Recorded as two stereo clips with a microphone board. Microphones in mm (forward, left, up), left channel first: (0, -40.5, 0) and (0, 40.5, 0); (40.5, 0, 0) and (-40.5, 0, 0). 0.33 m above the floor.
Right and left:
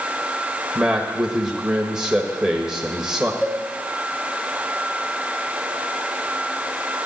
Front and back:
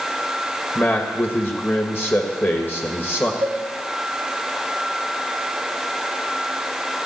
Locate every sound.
0.8 s a man speaking: 15° left, 1.3 m
3.4 s a cowbell: 170° right, 5.5 m